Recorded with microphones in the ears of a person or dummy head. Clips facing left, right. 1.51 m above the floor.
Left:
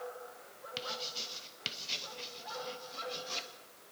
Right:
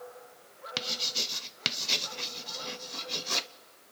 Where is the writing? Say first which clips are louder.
Right 3 dB; 70° right (ahead or behind), 0.9 m.